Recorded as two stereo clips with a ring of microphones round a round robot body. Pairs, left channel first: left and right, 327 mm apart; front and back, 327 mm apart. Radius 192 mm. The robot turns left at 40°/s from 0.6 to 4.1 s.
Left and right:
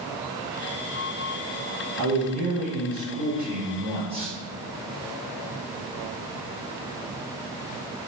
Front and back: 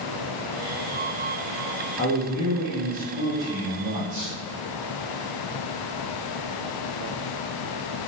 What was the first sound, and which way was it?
A man speaking, 75° right.